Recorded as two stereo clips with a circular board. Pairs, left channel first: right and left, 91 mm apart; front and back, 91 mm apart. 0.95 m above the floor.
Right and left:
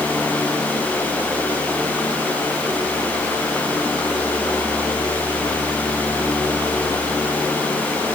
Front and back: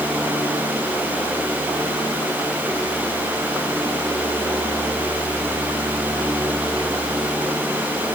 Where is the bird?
No bird in this recording.